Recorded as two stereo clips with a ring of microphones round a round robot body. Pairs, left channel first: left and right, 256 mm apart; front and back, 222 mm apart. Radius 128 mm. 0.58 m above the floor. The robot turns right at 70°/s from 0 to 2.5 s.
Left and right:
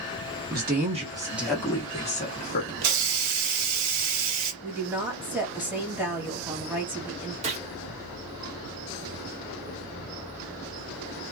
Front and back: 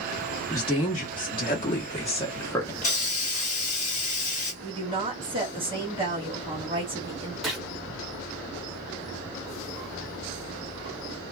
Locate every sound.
0.5 s a woman speaking: 70° right, 1.2 m; by 2.7 s 70° left, 1.2 m
2.8 s a hiss: 65° right, 0.8 m
4.6 s a woman speaking: 160° right, 1.2 m
7.4 s a gunshot: 90° right, 0.9 m